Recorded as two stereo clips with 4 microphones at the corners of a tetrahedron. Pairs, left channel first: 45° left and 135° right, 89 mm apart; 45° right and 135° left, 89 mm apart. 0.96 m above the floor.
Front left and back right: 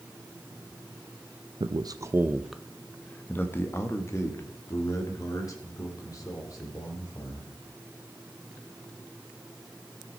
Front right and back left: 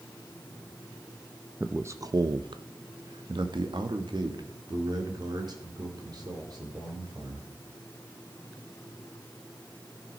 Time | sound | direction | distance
1.6 | a man speaking | 155° right | 0.5 m